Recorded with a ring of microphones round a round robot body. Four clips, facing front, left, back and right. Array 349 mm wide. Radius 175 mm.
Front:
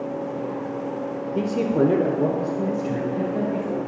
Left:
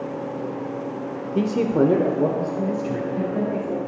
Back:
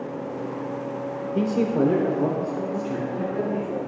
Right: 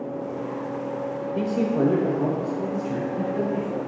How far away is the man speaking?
About 0.8 m.